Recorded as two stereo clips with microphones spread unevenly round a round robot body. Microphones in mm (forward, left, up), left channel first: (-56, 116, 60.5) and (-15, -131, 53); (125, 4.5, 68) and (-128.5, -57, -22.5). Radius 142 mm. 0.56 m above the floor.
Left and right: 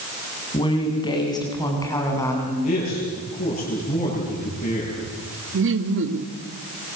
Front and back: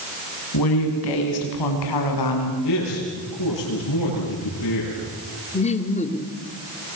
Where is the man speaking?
35° left, 10 m.